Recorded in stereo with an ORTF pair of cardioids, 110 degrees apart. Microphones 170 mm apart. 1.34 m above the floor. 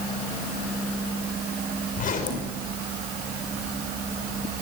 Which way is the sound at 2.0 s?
50° left.